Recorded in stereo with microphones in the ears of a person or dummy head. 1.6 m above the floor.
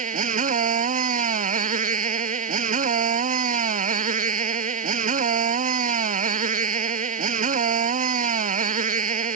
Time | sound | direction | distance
0.0 | a motorcycle | 40° right (ahead or behind) | ?